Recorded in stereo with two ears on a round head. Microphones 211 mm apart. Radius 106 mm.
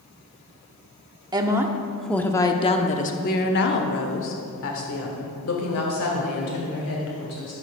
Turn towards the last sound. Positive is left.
turn(degrees=70)  # may be behind; listen again after turning